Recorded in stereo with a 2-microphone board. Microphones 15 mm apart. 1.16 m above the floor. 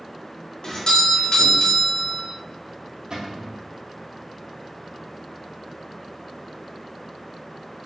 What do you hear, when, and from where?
0.6 s a doorbell: 50° left (ahead or behind), 0.8 m
3.1 s a cupboard door: 55° right (ahead or behind), 1.2 m